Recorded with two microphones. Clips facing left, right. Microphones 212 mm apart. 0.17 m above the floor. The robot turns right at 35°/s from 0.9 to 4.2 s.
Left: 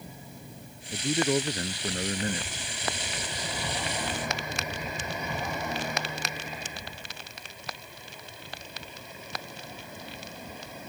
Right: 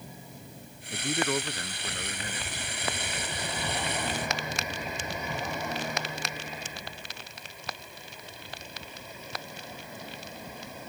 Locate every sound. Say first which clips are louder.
0.9 s a man speaking: left 4 dB; 10° left; by 2.7 s 70° left